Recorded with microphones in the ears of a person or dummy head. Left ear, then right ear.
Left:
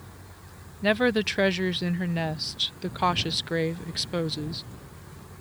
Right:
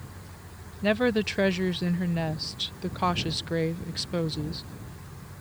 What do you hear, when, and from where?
0.8 s a woman speaking: 15° left (ahead or behind)